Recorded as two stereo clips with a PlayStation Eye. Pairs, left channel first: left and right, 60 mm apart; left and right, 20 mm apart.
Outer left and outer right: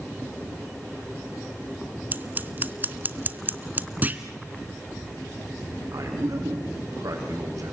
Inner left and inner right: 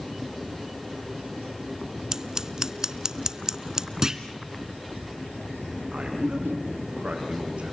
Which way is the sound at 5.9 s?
70° right (ahead or behind).